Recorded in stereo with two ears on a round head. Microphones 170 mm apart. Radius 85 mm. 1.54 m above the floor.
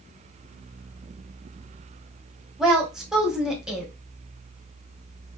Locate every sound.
2.6 s a woman speaking: 5° right (ahead or behind), 1.5 m